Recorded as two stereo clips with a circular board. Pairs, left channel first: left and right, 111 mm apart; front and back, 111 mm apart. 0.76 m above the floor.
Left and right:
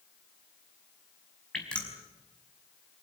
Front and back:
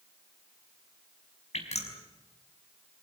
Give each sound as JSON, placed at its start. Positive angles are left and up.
{"t": 1.5, "sound": "dripping", "azimuth_deg": 10, "distance_m": 5.0}